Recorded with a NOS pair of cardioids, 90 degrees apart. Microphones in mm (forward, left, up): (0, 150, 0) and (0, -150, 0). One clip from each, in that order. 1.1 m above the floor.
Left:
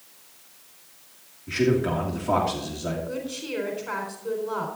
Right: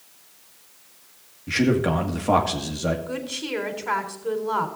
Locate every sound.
1.5 s a man speaking: 40° right, 1.8 m
3.1 s a woman speaking: 45° right, 3.5 m